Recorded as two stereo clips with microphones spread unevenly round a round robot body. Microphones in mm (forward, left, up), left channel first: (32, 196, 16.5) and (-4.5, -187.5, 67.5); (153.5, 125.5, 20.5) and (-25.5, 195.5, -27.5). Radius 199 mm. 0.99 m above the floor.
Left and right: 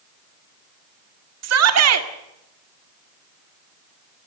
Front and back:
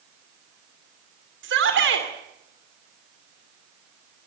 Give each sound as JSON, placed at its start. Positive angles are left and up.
{"t": 1.4, "sound": "a shout", "azimuth_deg": -150, "distance_m": 2.5}